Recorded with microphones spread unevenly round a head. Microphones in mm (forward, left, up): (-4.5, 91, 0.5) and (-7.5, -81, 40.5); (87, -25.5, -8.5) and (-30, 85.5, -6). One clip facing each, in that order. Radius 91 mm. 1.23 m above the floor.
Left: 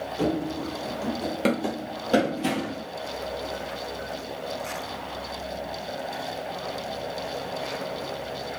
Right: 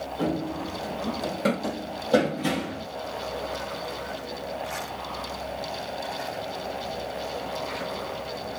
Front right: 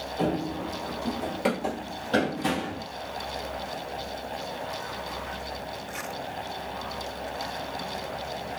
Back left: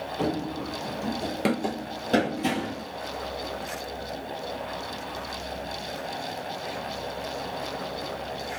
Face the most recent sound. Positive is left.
turn(degrees=160)